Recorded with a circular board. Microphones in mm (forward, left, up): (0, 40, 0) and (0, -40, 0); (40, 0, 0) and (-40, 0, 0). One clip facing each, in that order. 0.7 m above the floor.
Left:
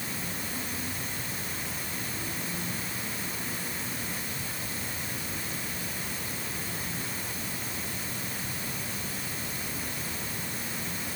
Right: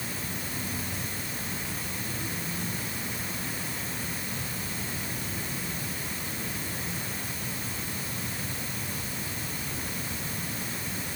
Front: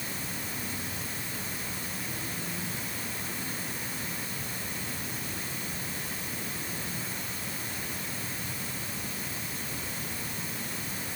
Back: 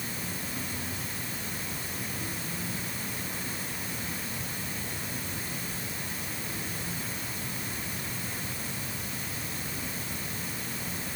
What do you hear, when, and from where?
Only background noise.